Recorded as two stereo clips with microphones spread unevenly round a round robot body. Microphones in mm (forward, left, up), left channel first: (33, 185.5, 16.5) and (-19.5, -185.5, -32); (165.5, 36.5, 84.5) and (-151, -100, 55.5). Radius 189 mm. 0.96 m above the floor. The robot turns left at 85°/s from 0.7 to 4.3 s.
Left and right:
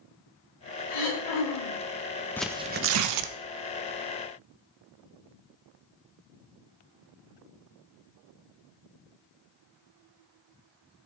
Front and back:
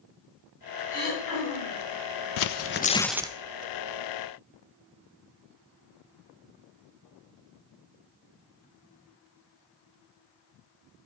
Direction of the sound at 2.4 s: 5° right.